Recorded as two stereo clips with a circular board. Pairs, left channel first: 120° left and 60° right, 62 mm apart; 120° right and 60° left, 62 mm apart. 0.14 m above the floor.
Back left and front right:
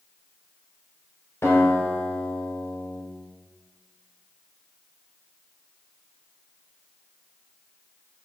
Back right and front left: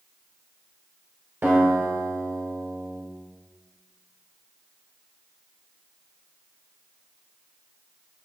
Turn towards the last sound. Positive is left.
turn(degrees=95)